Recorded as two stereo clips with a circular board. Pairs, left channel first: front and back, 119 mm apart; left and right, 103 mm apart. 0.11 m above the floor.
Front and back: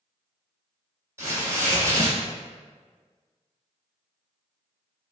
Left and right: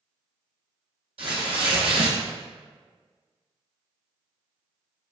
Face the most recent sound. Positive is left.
turn(degrees=-115)